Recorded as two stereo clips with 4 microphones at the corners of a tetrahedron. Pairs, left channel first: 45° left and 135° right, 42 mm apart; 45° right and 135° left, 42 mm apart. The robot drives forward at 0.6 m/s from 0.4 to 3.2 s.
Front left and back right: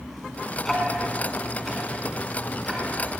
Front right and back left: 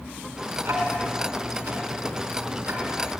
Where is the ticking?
130° left, 3.5 m; by 3.1 s 145° left, 4.5 m.